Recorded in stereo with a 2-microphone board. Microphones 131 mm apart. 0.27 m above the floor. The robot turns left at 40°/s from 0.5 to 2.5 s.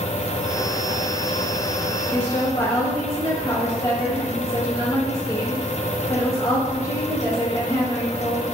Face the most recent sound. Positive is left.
turn(degrees=20)  # may be behind; listen again after turning